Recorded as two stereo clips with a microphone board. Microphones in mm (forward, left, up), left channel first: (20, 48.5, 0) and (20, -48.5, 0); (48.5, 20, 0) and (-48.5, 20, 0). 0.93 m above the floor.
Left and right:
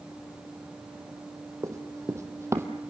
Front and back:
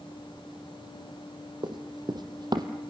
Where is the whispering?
No whispering in this recording.